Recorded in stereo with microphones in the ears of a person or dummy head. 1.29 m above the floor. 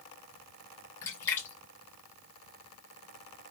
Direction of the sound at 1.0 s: 15° left (ahead or behind).